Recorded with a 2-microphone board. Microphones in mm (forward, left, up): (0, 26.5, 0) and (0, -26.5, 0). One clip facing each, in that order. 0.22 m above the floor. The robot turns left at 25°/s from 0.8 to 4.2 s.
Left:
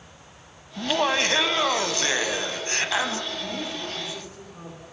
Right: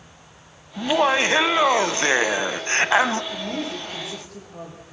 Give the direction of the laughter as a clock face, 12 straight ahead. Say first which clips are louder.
Right 4 dB; 1 o'clock.